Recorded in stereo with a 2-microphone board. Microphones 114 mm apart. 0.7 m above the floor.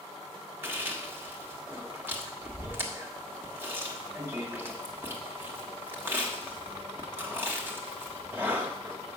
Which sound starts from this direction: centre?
Chewing, at 0.6 s.